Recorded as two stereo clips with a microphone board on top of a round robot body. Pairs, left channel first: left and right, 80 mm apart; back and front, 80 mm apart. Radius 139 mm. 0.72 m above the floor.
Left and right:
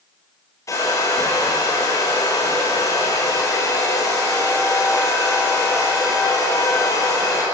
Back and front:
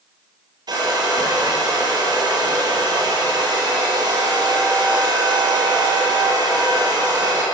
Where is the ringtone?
I don't hear a ringtone.